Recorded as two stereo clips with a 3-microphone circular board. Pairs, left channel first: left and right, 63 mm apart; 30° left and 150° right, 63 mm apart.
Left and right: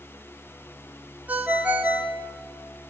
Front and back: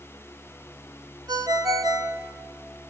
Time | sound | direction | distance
1.3 | a ringtone | 155° right | 1.6 m